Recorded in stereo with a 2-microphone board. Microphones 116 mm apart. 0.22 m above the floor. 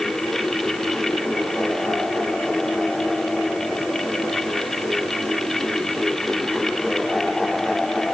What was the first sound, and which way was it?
Only background noise.